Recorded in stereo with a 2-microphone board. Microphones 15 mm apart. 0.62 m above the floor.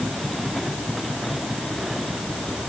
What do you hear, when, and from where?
Only background noise.